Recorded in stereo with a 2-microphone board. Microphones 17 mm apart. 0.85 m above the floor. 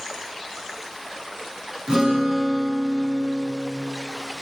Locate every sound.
1.9 s a guitar: 65° right (ahead or behind), 7.5 m